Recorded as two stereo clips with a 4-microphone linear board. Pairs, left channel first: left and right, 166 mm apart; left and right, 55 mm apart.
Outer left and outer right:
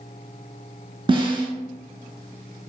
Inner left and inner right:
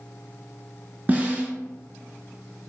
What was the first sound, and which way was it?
A snare drum, 30° right (ahead or behind).